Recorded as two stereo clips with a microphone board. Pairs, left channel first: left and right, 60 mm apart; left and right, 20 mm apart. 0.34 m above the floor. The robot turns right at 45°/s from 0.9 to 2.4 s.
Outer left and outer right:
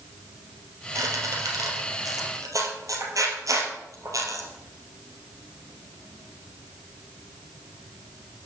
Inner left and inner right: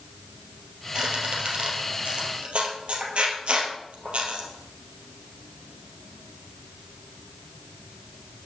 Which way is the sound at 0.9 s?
50° right (ahead or behind).